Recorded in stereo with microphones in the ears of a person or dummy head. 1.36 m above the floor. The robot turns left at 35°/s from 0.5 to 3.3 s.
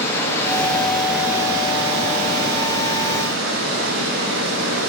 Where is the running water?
20° left, 1.5 m; by 4.9 s 80° right, 1.5 m.